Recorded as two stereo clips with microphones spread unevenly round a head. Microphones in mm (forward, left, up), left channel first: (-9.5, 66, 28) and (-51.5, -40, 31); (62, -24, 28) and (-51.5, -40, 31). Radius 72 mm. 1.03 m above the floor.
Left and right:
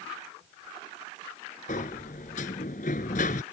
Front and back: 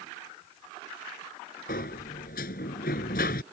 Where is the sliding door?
30° left.